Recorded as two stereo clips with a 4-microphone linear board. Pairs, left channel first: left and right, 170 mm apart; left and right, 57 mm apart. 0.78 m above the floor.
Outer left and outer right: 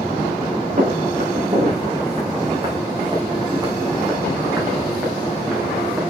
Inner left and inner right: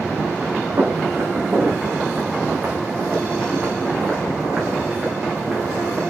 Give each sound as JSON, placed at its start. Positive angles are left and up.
{"t": 0.8, "sound": "footsteps", "side_deg": -45, "distance_m": 3.5}